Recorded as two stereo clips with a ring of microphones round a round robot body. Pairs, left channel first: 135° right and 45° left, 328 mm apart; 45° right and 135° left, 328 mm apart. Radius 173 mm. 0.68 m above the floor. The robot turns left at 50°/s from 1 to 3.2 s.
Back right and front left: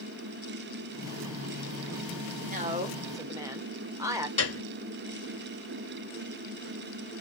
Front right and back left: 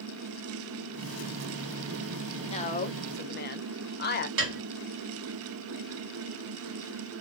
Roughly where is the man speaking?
Ahead.